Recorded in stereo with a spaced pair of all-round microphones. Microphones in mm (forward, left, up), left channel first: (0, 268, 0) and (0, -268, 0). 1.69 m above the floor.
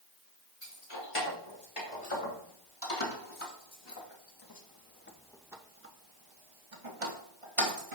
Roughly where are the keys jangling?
Left.